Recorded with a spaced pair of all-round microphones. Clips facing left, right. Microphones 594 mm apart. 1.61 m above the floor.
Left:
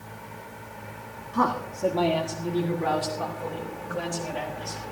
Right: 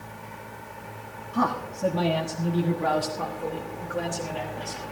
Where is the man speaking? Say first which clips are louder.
Even; 10° right (ahead or behind), 1.1 m; by 4.8 s 85° right, 3.5 m.